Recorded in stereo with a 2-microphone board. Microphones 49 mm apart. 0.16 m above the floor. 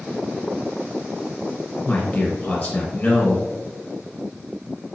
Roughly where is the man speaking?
Centre.